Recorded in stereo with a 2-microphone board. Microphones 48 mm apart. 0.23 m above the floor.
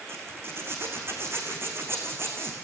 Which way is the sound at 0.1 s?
50° right (ahead or behind).